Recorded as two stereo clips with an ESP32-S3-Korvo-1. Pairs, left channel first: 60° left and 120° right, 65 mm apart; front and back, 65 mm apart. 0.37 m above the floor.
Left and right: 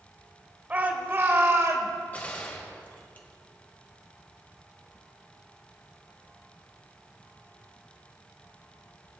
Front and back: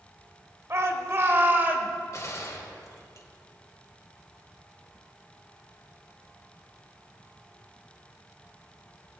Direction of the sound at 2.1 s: 5° left.